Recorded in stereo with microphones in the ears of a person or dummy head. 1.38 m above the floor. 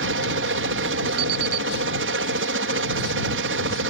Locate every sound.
0.0 s a helicopter: 55° right (ahead or behind)
1.2 s an alarm clock: 55° right (ahead or behind)